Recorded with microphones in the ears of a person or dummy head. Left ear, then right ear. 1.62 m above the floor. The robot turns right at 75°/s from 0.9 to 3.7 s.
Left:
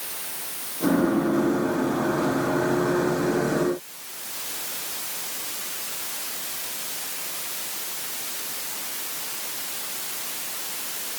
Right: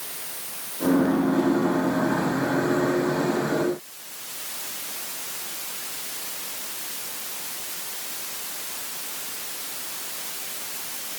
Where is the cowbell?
I don't hear a cowbell.